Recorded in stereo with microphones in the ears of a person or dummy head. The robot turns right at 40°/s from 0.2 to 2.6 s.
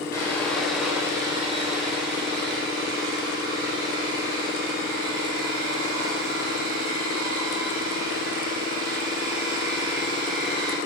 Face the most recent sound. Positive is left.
turn(degrees=-100)